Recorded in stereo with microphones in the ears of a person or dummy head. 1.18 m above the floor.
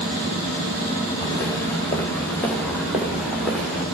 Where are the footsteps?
15° left (ahead or behind), 6 m; by 3.8 s 10° right (ahead or behind), 6 m.